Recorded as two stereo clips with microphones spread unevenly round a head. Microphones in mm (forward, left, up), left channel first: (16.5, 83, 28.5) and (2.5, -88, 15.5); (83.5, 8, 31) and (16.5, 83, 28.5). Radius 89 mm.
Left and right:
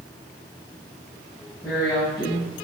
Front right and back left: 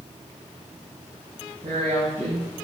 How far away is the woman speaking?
About 6 m.